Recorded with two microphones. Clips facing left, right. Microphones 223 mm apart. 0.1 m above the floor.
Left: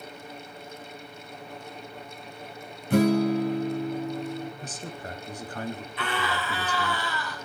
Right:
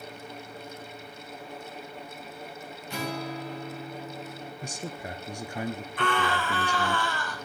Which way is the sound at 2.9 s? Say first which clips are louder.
Left 14 dB; 50° left (ahead or behind).